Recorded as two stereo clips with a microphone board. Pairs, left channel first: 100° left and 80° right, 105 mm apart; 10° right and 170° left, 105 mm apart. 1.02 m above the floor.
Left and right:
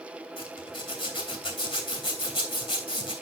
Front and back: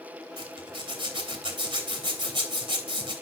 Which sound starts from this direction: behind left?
A zipper, at 0.4 s.